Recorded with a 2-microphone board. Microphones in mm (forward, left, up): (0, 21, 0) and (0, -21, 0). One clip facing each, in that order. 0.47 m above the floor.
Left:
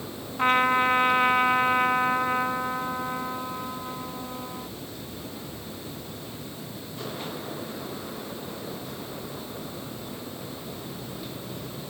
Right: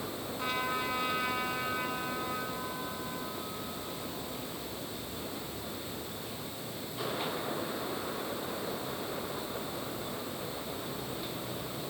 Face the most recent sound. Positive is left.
turn(degrees=50)  # may be behind; listen again after turning